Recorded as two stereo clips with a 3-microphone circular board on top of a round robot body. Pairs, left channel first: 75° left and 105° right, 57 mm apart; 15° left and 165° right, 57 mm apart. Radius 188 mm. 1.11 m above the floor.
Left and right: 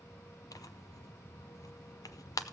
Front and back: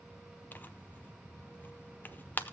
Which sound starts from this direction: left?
Tearing paper, at 0.5 s.